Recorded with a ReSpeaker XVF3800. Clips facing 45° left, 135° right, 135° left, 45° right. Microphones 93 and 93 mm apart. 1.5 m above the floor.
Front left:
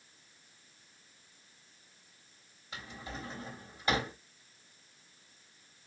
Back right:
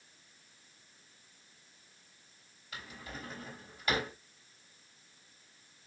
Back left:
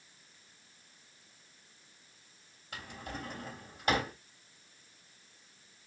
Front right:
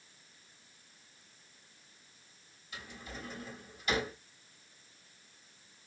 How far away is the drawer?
About 2.5 m.